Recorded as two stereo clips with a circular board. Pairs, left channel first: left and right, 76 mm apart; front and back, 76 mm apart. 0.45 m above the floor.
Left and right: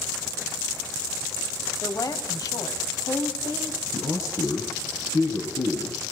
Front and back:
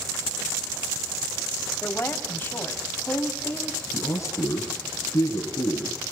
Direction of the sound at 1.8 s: 60° left.